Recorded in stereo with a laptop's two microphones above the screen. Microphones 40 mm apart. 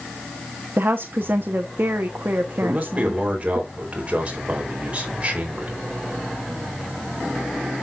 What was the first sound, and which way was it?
A woman speaking, 55° right (ahead or behind).